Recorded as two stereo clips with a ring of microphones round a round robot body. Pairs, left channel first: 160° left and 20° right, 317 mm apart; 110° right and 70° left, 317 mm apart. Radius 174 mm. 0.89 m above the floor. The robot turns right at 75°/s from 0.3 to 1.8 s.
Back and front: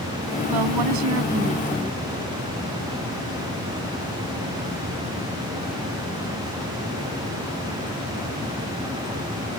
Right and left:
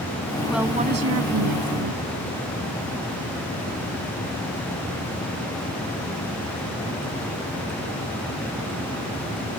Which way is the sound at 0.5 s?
25° right.